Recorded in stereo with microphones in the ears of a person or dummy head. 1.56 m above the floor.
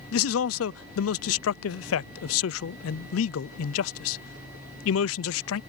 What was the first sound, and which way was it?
A man speaking, 80° left.